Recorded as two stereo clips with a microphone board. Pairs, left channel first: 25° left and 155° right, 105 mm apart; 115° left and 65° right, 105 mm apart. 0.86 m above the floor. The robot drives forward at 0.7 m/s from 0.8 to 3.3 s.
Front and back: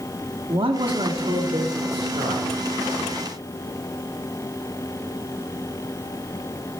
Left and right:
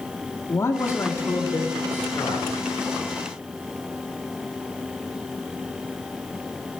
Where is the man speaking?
170° left, 1.3 m; by 2.5 s 175° left, 2.5 m.